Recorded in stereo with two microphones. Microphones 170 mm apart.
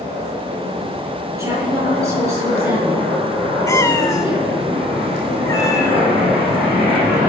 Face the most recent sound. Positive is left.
turn(degrees=20)  # may be behind; listen again after turning